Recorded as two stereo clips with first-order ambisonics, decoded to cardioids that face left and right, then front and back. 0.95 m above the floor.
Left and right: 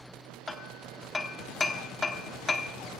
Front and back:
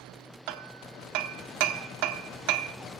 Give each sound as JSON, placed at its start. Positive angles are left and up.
{"t": 0.5, "sound": "hammering", "azimuth_deg": 165, "distance_m": 1.0}